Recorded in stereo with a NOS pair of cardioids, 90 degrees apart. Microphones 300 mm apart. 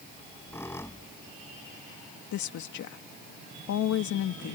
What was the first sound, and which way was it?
A squeak, 10° left.